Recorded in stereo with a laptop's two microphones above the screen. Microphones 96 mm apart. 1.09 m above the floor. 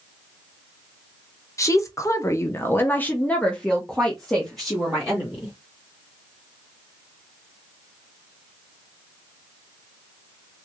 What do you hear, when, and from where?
1.6 s a woman speaking: 30° left (ahead or behind), 0.8 m; by 5.5 s centre (ahead or behind), 1.9 m